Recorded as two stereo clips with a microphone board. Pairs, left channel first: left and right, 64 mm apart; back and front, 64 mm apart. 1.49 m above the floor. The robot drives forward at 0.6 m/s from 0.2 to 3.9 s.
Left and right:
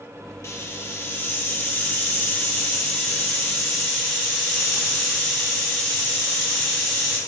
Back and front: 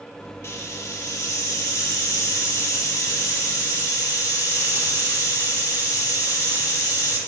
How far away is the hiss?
About 1.1 m.